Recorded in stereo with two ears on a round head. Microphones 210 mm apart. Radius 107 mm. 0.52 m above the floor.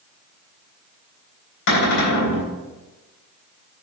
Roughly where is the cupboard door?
Left.